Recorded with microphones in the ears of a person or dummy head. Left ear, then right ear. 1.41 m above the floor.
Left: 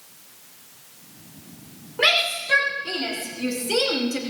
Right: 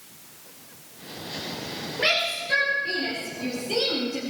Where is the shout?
45° left (ahead or behind), 4.5 m; by 4.2 s 55° left (ahead or behind), 2.5 m.